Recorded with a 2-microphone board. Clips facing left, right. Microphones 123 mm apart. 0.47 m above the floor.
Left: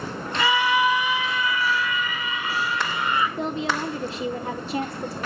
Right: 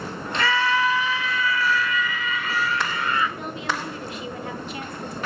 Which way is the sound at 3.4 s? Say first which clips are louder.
Left 4 dB; 30° left (ahead or behind).